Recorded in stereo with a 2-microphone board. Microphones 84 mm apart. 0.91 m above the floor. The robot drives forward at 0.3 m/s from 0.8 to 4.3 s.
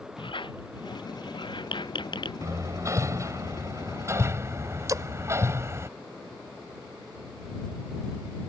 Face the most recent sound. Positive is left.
turn(degrees=-40)  # may be behind; listen again after turning